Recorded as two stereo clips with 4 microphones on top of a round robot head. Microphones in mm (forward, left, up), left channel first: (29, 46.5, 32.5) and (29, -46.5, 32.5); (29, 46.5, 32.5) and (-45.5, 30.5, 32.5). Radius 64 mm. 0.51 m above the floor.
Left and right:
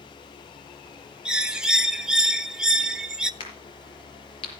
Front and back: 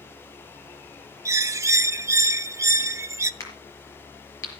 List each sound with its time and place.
1.2 s a bird: 165° right, 0.6 m
3.4 s a crack: 60° left, 5 m